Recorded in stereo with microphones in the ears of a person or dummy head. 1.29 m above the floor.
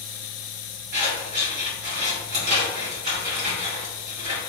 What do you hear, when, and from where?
0.9 s scissors: 50° right (ahead or behind), 1.3 m